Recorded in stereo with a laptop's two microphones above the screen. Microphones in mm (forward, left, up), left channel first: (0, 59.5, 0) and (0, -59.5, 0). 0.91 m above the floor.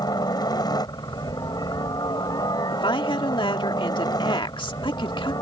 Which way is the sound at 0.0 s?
35° left (ahead or behind).